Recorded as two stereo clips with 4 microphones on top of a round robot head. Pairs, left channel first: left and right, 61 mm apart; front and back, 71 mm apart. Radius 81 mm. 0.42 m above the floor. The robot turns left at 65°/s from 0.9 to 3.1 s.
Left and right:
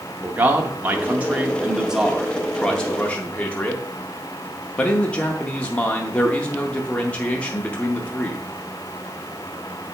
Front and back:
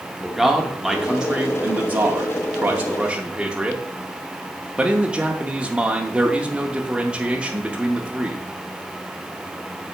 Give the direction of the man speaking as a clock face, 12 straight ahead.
3 o'clock.